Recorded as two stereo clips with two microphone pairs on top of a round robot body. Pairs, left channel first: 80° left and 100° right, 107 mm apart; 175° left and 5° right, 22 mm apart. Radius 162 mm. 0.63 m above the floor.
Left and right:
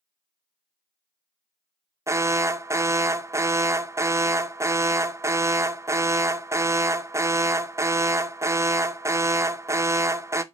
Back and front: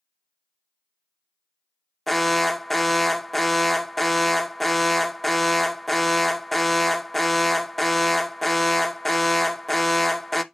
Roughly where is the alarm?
Behind right.